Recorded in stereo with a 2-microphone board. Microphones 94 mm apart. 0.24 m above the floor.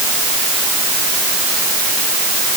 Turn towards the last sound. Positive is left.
No sound to turn to.